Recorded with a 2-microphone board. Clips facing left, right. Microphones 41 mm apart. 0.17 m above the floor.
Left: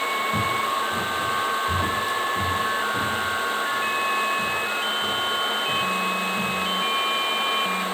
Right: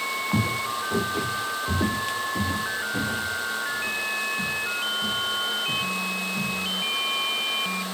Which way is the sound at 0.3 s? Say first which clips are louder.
Left 3 dB; 85° right.